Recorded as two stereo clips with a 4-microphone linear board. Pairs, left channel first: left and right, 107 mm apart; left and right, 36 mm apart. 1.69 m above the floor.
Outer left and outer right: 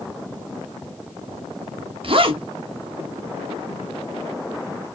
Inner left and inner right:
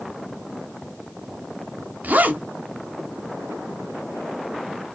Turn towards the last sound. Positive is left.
turn(degrees=-55)  # may be behind; listen again after turning